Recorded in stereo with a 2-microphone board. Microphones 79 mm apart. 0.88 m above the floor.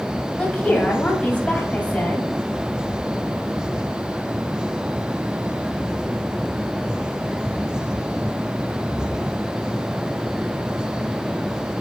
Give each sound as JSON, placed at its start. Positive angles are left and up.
{"t": 0.4, "sound": "a woman speaking", "side_deg": 20, "distance_m": 2.0}